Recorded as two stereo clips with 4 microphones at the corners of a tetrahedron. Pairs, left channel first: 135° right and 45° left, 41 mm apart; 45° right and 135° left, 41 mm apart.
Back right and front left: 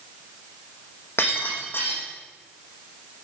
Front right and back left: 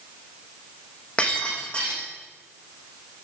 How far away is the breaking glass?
About 5.5 m.